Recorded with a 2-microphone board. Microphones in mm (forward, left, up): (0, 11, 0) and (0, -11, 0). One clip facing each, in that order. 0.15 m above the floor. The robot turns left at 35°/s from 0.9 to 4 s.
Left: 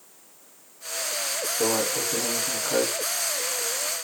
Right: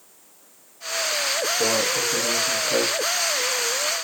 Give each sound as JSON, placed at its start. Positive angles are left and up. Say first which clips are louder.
{"t": 1.6, "sound": "a microwave", "louder": "even", "azimuth_deg": -175, "distance_m": 1.3}